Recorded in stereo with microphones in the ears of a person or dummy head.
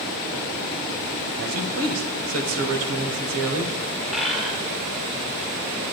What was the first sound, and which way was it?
A man speaking, 85° right.